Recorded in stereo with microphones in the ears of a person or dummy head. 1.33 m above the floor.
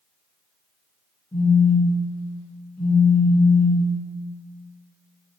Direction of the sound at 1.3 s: 5° left (ahead or behind).